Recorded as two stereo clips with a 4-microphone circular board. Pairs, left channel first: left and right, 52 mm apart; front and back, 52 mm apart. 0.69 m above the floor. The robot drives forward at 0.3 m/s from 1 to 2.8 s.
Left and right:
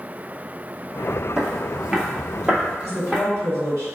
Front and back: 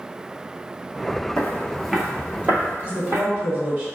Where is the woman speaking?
115° left, 1.6 m.